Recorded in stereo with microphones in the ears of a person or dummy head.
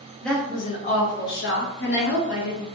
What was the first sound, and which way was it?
A woman speaking, centre (ahead or behind).